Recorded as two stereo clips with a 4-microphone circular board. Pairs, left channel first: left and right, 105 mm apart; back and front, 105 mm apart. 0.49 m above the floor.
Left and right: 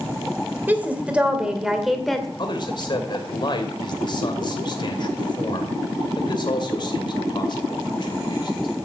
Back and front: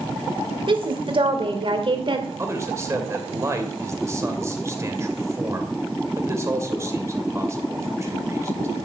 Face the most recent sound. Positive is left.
turn(degrees=60)